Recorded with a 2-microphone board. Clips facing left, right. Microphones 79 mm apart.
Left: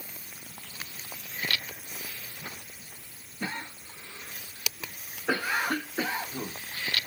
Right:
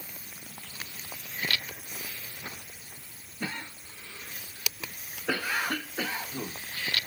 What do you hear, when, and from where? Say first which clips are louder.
3.4 s a cough: left 1 dB; 20° left (ahead or behind)